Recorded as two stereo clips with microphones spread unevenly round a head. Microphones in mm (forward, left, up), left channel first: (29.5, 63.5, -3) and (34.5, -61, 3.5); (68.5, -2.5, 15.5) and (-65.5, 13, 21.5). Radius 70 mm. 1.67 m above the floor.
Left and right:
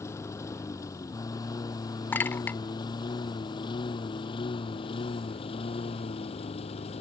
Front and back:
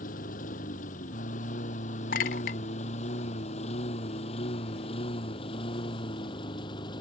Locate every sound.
0.0 s a lawn mower: 25° left; by 7.0 s 55° left
2.1 s a clink: 20° left